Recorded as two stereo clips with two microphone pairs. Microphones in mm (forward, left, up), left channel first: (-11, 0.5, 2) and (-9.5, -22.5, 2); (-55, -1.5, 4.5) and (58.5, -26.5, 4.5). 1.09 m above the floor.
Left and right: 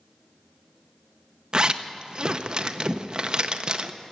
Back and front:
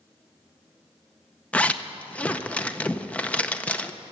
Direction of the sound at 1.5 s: 120° right.